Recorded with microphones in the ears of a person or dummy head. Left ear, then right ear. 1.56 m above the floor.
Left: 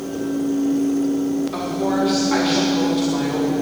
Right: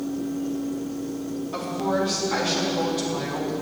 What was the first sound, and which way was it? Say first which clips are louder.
A woman speaking: left 3 dB; centre (ahead or behind).